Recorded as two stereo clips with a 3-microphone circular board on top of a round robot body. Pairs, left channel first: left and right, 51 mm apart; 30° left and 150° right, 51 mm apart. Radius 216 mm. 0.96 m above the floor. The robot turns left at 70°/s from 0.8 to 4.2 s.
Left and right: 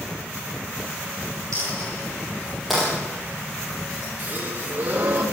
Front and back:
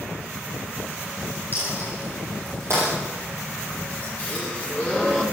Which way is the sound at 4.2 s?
30° right.